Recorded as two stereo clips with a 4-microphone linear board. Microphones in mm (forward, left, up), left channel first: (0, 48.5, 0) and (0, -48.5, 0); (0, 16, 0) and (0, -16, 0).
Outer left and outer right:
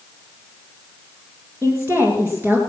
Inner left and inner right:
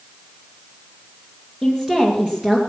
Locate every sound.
1.6 s a woman speaking: 20° right (ahead or behind), 2 m